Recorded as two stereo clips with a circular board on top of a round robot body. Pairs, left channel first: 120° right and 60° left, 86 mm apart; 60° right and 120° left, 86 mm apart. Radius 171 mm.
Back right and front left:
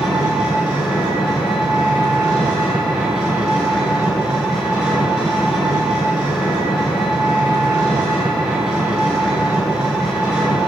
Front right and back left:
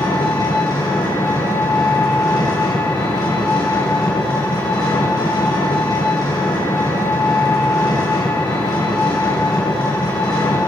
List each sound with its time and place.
0.0 s an engine running: 20° right, 4 m